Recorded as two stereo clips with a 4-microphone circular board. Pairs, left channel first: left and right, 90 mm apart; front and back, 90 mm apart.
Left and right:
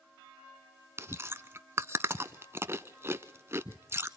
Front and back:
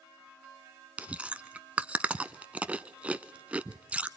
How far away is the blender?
I don't hear a blender.